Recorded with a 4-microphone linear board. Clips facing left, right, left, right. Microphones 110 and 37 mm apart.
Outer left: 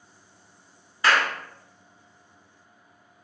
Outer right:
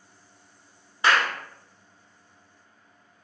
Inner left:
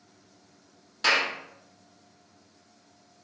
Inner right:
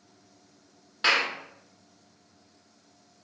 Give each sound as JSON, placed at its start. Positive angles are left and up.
{"t": 1.0, "sound": "a clap", "side_deg": -20, "distance_m": 1.2}